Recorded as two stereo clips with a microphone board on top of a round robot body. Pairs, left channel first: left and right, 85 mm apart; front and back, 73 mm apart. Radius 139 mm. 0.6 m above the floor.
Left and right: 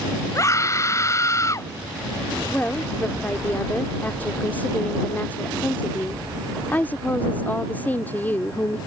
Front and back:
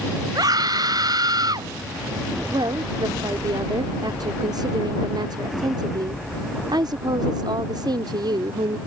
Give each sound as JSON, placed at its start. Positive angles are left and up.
{"t": 0.3, "sound": "a scream", "azimuth_deg": 145}
{"t": 2.5, "sound": "a woman speaking", "azimuth_deg": 160}